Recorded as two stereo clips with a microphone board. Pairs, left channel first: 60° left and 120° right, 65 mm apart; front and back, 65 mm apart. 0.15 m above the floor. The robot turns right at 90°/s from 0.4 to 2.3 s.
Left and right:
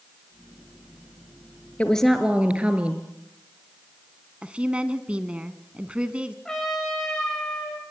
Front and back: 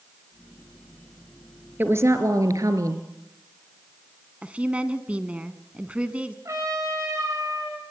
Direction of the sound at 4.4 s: 155° right.